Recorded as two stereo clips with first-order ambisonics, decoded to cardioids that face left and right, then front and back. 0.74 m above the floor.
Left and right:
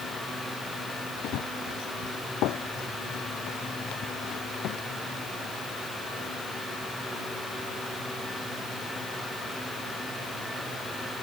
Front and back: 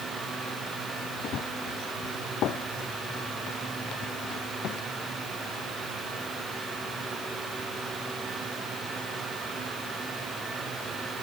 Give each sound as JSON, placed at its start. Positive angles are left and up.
{"t": 1.2, "sound": "running footsteps", "azimuth_deg": 50}